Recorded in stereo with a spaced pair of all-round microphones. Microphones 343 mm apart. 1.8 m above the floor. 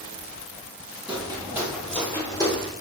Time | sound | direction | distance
1.1 | footsteps | 15° right (ahead or behind) | 1.9 m